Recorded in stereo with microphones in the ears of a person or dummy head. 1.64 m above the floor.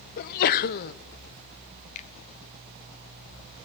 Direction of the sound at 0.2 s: 55° left (ahead or behind).